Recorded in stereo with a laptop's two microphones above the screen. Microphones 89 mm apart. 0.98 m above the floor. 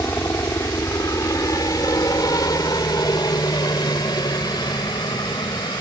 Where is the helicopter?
30° left (ahead or behind); by 5.8 s 50° left (ahead or behind).